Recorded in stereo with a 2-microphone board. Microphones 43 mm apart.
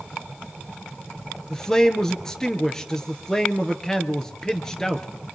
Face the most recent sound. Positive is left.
turn(degrees=15)  # may be behind; listen again after turning